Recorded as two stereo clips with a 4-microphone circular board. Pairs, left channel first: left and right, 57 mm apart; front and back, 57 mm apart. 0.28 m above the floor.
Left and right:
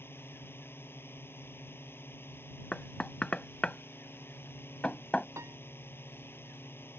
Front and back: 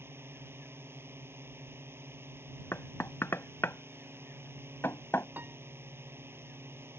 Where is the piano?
125° right.